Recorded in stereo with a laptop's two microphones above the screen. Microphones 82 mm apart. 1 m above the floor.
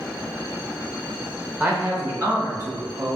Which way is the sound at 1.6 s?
20° right (ahead or behind).